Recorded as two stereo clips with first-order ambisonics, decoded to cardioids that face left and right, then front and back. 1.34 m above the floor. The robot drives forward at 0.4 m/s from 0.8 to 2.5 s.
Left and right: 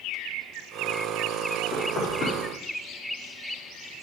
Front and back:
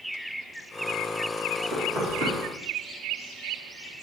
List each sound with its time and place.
1.7 s knocking: 155° left, 2.5 m; by 2.4 s 160° left, 2.5 m